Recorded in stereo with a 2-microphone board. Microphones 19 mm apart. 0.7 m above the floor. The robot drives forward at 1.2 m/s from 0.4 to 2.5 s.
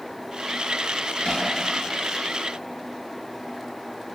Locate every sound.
1.2 s hammering: 60° left (ahead or behind), 8.5 m